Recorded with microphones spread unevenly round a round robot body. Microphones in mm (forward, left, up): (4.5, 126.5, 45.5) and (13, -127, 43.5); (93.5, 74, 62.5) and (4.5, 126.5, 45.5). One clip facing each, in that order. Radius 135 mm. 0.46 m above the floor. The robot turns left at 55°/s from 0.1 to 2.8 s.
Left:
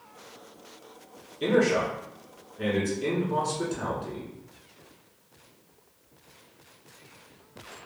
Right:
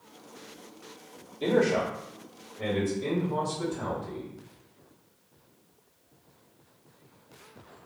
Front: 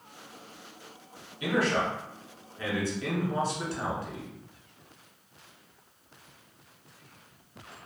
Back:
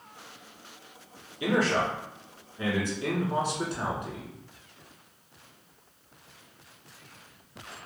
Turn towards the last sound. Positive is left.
turn(degrees=100)